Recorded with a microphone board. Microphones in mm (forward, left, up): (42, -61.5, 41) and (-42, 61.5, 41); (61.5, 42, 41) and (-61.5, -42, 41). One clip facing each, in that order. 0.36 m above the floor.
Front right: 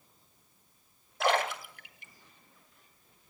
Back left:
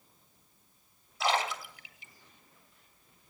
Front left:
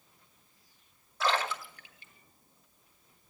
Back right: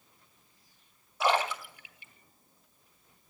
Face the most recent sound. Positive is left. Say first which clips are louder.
# front right 2 dB, back right 3 dB
turn(degrees=-70)